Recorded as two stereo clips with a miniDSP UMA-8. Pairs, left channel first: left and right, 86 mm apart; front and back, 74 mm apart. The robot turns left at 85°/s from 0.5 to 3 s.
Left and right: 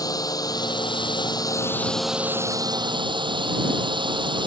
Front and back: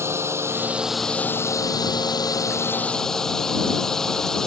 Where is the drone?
130° left; by 4.5 s 80° right.